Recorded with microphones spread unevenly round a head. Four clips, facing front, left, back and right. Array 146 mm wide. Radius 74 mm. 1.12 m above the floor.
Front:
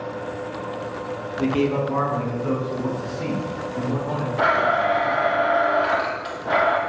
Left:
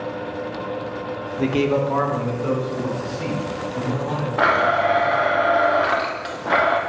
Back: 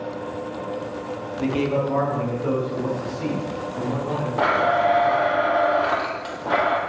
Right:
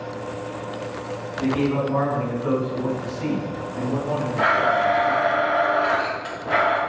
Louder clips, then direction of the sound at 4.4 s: Left 2 dB, even; 145° left.